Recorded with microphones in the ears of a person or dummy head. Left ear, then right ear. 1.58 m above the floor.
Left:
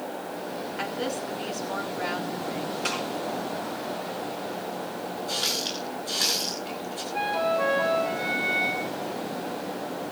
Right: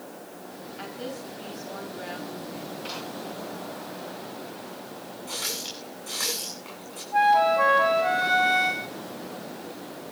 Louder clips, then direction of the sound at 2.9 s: Left 7 dB; 45° left (ahead or behind).